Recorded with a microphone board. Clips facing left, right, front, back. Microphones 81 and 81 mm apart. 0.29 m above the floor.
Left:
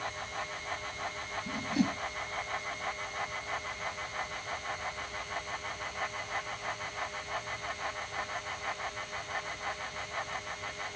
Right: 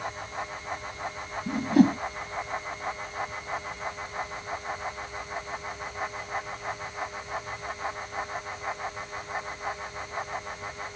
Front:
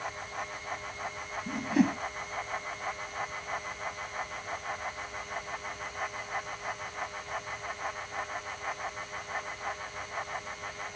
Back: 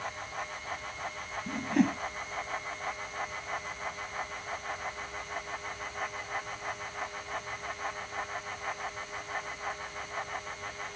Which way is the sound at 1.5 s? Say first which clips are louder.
Right 11 dB, front 1 dB; 85° right.